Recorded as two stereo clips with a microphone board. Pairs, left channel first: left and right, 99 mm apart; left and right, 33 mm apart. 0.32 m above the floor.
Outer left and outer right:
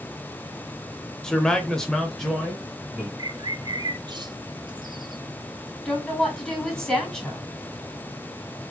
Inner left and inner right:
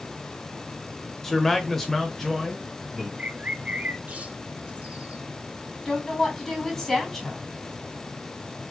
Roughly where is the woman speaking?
Centre.